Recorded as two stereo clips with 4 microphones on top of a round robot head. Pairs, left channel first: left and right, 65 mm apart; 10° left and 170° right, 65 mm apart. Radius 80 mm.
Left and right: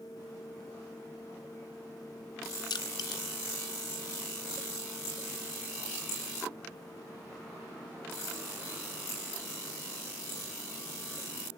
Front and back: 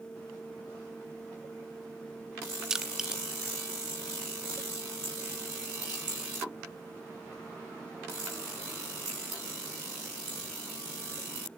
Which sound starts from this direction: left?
Crushing, at 2.7 s.